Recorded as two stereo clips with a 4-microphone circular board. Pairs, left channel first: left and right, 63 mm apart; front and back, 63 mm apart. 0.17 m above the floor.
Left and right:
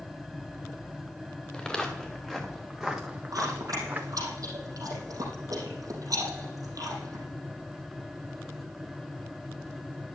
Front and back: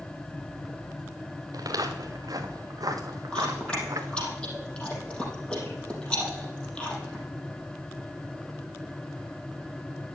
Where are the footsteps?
170° left, 2 m; by 4.3 s 150° right, 1.6 m.